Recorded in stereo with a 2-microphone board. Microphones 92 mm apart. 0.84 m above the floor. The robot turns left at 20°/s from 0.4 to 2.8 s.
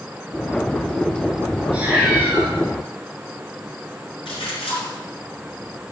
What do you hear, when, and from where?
1.7 s a cat meowing: 15° right (ahead or behind), 3 m; by 2.5 s 30° right (ahead or behind), 3 m
4.2 s a splash: 80° left, 4.5 m